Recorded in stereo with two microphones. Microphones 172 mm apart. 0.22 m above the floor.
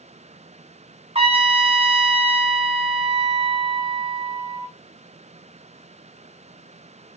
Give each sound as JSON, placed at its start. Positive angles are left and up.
{"t": 1.1, "sound": "a trumpet", "side_deg": -35, "distance_m": 0.7}